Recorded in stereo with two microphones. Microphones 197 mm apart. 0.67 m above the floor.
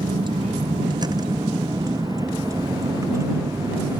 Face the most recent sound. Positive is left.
turn(degrees=-15)  # may be behind; listen again after turning